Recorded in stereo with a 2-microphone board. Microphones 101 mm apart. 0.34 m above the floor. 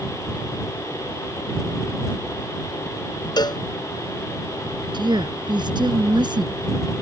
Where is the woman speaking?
50° right (ahead or behind).